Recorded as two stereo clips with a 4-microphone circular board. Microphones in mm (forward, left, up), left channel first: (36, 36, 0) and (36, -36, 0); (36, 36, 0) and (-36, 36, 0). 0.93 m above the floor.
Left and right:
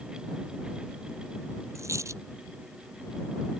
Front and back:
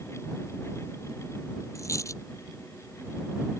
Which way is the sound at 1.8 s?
45° right.